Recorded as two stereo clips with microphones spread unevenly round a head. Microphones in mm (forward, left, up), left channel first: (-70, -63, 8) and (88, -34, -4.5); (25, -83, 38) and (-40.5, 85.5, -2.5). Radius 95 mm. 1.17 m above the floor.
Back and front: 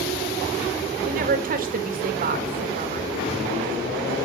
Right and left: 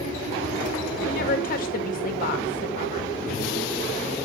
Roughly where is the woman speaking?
Ahead.